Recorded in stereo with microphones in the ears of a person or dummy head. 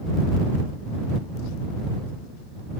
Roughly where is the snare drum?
I don't hear a snare drum.